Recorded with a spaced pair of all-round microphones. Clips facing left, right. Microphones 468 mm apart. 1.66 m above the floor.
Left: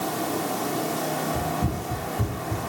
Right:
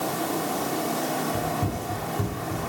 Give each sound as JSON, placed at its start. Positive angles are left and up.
{"t": 1.3, "sound": "running footsteps", "side_deg": 0, "distance_m": 8.0}